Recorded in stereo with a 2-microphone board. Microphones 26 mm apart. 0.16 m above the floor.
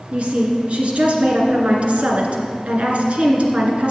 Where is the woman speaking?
50° right (ahead or behind), 2 m.